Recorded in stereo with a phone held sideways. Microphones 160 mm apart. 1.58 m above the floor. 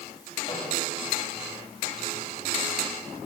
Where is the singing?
I don't hear singing.